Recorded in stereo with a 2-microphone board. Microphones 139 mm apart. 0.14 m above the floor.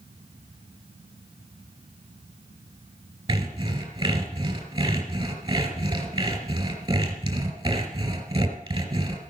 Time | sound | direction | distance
3.3 | sawing | 35° right (ahead or behind) | 2.5 m